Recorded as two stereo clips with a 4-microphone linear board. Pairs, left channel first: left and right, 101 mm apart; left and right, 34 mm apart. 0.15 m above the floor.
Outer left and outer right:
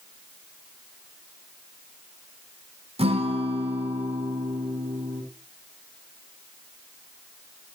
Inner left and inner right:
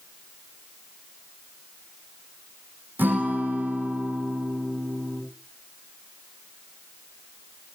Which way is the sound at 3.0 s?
80° right.